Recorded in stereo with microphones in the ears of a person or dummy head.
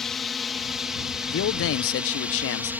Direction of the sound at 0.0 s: 5° left (ahead or behind).